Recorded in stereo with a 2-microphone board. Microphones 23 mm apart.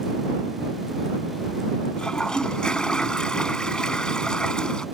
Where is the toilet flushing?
40° left (ahead or behind).